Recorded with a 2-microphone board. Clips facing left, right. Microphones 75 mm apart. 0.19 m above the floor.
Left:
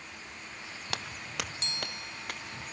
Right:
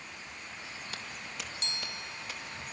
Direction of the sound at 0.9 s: 75° left (ahead or behind).